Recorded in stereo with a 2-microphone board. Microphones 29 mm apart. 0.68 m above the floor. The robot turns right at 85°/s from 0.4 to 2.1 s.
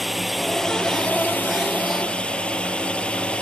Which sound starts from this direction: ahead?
A drone, at 0.0 s.